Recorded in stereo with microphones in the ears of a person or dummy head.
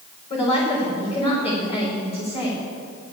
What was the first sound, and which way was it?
A woman speaking, 40° left (ahead or behind).